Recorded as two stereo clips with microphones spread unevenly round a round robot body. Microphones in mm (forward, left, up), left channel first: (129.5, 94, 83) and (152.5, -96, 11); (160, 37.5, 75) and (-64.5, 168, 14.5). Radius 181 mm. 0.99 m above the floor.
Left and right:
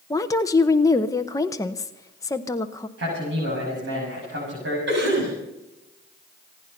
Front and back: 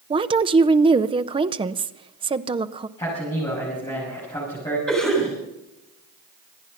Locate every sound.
0.1 s a woman speaking: 170° right, 0.7 m
3.0 s a man speaking: 110° right, 6.5 m
4.9 s a cough: 120° right, 7 m